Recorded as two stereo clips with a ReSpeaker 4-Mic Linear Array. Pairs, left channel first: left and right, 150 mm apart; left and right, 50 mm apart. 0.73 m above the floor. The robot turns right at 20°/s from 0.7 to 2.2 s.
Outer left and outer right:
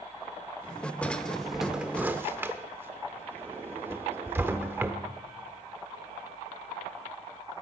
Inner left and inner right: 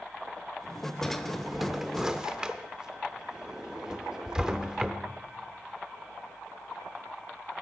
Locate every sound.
1.0 s a drawer: 10° left (ahead or behind), 0.8 m; by 5.0 s 15° right (ahead or behind), 0.8 m